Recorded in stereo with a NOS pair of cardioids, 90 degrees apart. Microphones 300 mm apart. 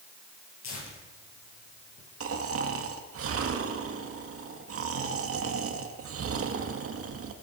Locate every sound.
0.6 s tearing paper: 65° left, 9 m
2.2 s snoring: 55° right, 2 m